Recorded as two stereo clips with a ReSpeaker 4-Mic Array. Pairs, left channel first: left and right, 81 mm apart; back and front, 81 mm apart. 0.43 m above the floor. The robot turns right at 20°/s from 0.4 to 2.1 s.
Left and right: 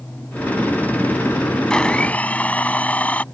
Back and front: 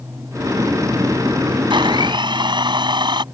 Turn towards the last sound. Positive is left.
turn(degrees=20)